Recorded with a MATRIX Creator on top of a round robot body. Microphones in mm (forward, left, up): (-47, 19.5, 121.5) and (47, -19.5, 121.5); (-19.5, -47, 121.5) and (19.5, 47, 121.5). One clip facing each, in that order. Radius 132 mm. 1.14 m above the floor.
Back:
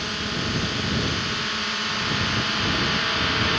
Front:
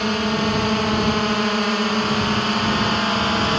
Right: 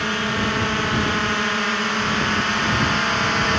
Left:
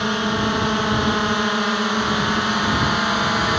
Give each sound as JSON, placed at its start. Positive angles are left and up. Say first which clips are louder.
{"t": 0.0, "sound": "a drone", "louder": "front 9 dB, left 2 dB", "azimuth_deg": 0}